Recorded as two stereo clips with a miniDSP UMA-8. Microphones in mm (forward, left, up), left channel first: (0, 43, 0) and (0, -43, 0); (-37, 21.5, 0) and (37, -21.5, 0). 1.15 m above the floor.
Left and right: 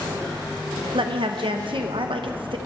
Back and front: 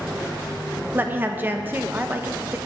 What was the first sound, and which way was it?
A woman speaking, 95° right.